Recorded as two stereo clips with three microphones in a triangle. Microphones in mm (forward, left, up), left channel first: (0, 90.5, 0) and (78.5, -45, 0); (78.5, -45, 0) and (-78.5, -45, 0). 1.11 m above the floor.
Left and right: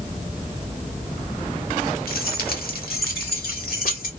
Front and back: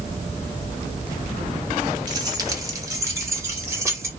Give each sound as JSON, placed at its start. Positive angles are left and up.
{"t": 2.1, "sound": "keys jangling", "azimuth_deg": 120, "distance_m": 1.0}